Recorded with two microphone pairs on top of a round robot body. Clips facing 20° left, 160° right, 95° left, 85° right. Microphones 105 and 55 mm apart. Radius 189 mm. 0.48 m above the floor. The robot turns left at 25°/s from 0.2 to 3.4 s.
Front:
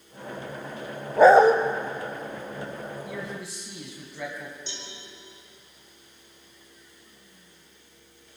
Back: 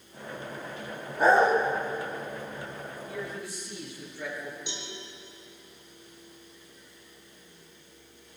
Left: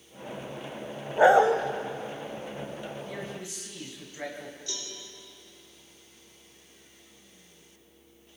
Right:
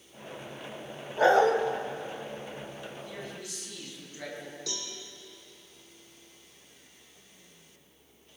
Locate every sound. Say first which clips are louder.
1.2 s a dog barking: front 7 dB, left 3 dB; 25° left, 1.1 m; by 1.6 s 15° left, 1.1 m
3.1 s a man speaking: front 1 dB, left 3 dB; 40° left, 5 m; by 4.6 s 30° left, 5 m
4.7 s a cowbell: back 2 dB, right 1 dB; 80° right, 6.5 m